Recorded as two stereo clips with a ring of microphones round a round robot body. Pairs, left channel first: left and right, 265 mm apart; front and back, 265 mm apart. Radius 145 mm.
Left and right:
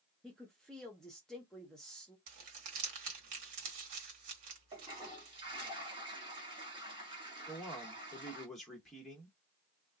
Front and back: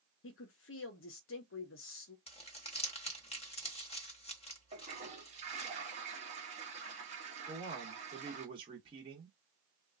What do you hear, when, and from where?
0.2 s a woman speaking: 5° left, 0.6 m
2.3 s crumpling: 65° right, 1.2 m
4.7 s a toilet flushing: 145° right, 1.2 m
7.5 s a man speaking: straight behind, 1.1 m